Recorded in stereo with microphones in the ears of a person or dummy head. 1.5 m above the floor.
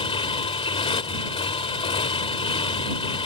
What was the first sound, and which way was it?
A motorcycle, 35° left (ahead or behind).